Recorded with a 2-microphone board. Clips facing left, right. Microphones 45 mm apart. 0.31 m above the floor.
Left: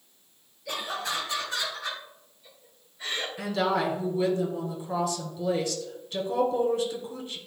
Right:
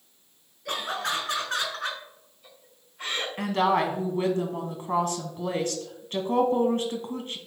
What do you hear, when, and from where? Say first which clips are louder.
0.7 s laughter: right 3 dB; 55° right (ahead or behind), 4.5 m; by 3.3 s 60° right (ahead or behind), 3 m
3.4 s a woman speaking: right 3 dB; 45° right (ahead or behind), 2 m